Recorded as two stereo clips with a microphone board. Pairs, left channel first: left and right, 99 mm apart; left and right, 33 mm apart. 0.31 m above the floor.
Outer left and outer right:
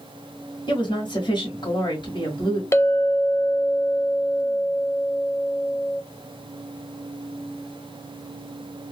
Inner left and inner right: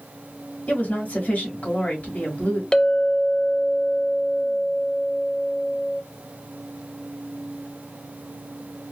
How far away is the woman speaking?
About 1.9 m.